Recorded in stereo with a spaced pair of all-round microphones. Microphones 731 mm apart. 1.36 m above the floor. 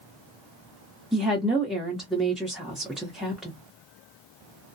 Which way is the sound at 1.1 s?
Centre (ahead or behind).